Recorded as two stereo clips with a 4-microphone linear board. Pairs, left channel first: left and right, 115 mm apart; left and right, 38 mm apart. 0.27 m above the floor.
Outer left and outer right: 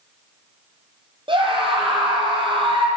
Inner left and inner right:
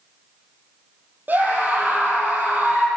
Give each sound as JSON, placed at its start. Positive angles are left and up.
{"t": 1.3, "sound": "a scream", "side_deg": -45, "distance_m": 7.5}